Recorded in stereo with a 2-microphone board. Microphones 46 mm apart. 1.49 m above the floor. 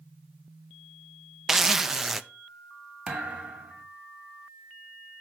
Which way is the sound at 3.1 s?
25° right (ahead or behind).